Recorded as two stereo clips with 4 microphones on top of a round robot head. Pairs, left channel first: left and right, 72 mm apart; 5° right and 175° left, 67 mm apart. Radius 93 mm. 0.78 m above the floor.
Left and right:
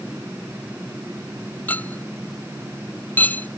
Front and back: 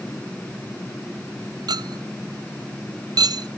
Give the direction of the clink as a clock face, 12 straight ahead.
7 o'clock.